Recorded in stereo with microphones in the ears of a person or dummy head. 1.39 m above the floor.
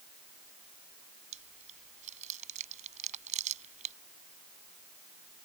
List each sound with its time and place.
1.3 s chewing: 40° right (ahead or behind)